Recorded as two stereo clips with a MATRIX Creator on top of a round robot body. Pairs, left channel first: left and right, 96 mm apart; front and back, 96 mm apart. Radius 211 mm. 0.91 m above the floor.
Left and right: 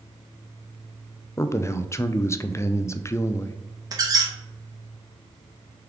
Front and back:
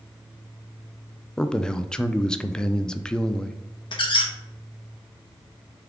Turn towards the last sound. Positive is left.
turn(degrees=-35)